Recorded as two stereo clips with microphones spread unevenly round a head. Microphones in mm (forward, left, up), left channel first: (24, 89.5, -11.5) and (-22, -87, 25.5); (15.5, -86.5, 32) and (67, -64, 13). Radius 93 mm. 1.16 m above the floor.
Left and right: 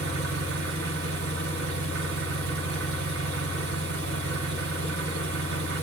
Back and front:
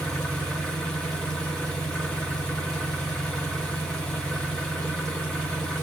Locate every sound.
0.0 s an engine running: 95° right, 1.0 m